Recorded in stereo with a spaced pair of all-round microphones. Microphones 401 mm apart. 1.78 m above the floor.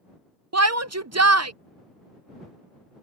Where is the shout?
40° right (ahead or behind).